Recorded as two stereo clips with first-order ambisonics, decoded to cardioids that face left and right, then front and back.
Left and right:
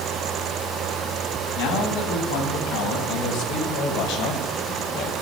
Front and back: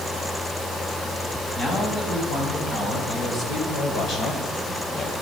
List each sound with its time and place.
1.6 s a man speaking: 70° left, 4.5 m; by 5.1 s 55° left, 3 m